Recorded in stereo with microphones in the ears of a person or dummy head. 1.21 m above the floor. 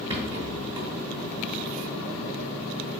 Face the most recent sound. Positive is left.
turn(degrees=-25)  # may be behind; listen again after turning